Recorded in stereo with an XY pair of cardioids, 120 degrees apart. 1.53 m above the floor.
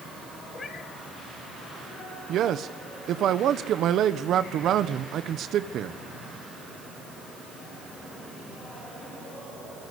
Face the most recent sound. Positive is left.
turn(degrees=-60)